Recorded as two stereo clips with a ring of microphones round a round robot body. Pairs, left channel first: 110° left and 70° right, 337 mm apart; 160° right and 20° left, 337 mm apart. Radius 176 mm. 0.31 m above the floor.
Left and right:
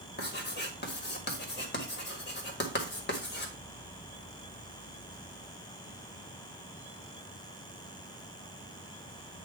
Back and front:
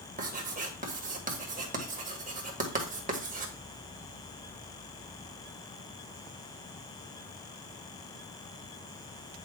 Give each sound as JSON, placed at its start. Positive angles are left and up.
{"t": 0.2, "sound": "writing", "azimuth_deg": 75, "distance_m": 1.8}